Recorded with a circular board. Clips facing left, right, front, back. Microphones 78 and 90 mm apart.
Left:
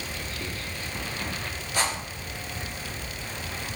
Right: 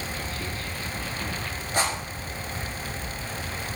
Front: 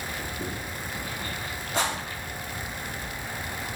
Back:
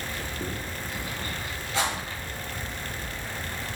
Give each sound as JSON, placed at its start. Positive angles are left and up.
{"t": 1.7, "sound": "a rattle", "azimuth_deg": -45, "distance_m": 1.6}